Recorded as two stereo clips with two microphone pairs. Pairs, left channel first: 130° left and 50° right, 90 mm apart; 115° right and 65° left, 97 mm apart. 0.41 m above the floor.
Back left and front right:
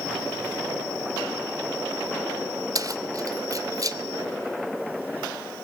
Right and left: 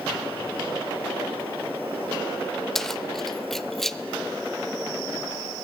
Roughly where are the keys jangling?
Ahead right.